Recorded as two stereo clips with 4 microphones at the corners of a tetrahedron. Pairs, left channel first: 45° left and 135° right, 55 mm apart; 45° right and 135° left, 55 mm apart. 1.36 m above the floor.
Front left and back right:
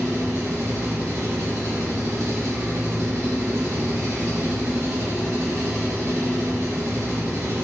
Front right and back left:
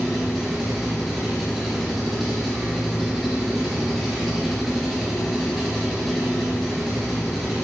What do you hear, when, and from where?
0.0 s an engine running: 135° right, 2 m